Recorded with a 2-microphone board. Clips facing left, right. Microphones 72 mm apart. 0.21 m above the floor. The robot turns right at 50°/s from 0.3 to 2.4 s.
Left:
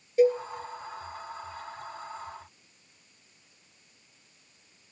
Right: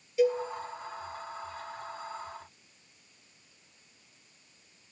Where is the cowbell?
40° left (ahead or behind), 1.6 m; by 0.4 s 45° left (ahead or behind), 1.6 m.